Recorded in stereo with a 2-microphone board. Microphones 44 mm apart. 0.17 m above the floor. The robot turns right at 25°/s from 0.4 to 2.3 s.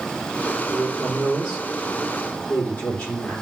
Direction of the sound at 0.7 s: 5° right.